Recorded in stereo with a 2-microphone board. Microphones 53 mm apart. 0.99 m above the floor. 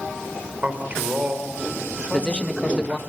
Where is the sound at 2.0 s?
20° left (ahead or behind), 1.5 m.